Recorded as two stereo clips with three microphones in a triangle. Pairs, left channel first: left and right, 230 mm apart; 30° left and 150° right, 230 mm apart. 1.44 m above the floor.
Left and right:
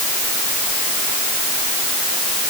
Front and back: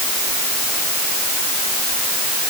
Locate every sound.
Only background noise.